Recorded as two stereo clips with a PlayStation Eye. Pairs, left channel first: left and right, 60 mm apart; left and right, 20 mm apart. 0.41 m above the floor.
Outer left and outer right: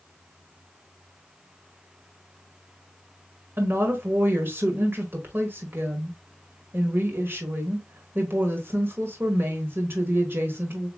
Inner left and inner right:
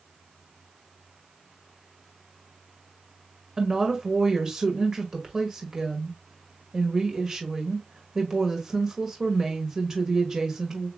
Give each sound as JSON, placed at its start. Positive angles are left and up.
{"t": 3.6, "sound": "a woman speaking", "side_deg": -40, "distance_m": 1.4}